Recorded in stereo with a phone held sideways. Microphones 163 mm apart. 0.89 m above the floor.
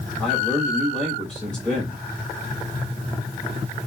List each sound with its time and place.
0.2 s a man speaking: 5° left (ahead or behind), 6 m